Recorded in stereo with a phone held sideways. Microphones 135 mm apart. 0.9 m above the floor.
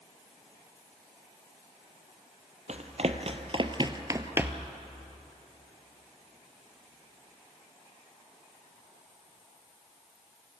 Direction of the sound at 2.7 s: 55° right (ahead or behind).